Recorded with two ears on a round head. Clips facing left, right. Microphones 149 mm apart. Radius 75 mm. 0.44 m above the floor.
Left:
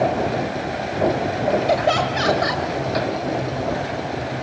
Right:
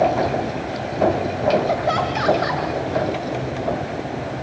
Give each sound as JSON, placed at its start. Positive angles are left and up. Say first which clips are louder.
{"t": 1.7, "sound": "laughter", "louder": "left 2 dB", "side_deg": 35, "distance_m": 2.0}